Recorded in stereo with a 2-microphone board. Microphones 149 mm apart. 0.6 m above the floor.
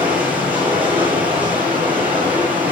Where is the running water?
10° right (ahead or behind), 8 m.